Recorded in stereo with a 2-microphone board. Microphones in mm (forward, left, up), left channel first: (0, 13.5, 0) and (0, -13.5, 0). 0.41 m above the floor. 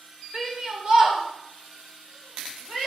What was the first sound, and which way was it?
A shout, 25° right (ahead or behind).